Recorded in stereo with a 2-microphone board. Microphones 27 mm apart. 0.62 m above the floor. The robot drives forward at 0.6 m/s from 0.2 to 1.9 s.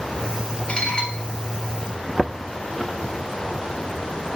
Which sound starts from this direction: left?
Dishes clattering, at 0.7 s.